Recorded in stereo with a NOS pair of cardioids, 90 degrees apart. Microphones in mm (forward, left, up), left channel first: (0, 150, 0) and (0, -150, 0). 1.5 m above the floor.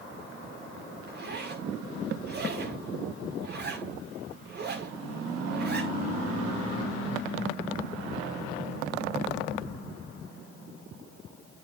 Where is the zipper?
35° right, 6 m.